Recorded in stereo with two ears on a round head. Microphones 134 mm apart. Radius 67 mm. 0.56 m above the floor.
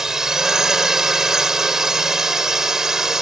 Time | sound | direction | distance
0.0 | a drone | 5° right (ahead or behind) | ?